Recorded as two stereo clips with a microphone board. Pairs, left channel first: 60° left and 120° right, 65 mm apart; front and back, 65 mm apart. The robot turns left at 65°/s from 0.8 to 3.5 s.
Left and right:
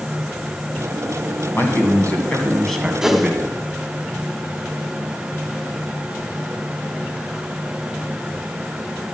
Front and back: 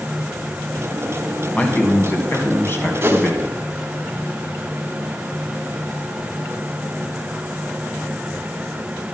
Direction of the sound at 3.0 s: 160° left.